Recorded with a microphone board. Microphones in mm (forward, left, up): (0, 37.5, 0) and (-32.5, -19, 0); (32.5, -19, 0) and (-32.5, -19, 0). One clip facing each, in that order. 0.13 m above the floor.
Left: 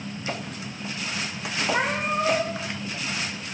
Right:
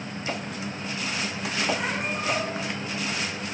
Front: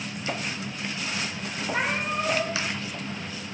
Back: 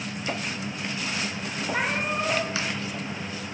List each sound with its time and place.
1.7 s a cat meowing: 95° left, 10 m